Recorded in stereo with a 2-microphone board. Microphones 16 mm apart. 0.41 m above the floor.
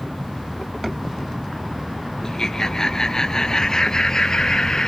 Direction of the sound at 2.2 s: 40° left (ahead or behind).